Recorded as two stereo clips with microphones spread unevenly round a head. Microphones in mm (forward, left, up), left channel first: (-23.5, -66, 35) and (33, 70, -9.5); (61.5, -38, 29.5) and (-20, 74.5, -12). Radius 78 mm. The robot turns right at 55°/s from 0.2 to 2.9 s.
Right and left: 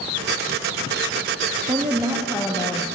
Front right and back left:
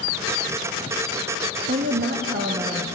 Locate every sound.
1.7 s a woman speaking: 125° left, 0.9 m; by 2.9 s 170° right, 0.9 m